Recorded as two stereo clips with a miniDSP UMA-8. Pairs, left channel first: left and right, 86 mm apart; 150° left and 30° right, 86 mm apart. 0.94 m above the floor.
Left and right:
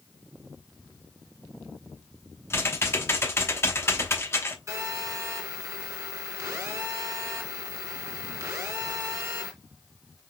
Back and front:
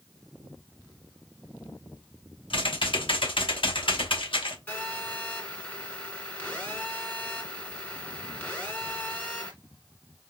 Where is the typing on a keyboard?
150° left, 1.0 m.